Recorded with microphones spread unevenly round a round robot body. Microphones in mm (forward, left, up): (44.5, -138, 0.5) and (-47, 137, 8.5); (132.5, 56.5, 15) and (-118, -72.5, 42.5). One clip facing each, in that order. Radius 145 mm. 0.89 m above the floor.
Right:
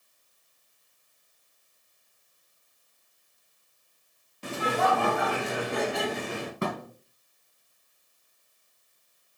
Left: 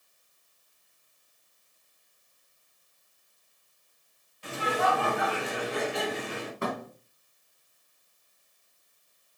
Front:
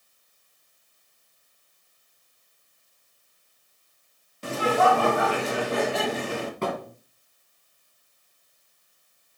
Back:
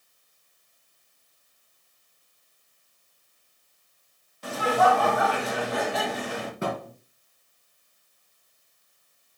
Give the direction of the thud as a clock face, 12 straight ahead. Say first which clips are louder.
Right 1 dB, back 1 dB; 2 o'clock.